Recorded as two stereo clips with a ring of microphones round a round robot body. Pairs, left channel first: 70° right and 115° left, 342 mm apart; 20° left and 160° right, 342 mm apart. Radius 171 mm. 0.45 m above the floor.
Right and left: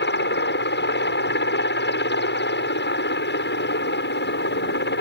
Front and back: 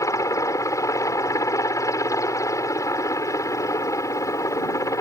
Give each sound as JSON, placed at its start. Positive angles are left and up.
{"t": 0.0, "sound": "a helicopter", "azimuth_deg": -50}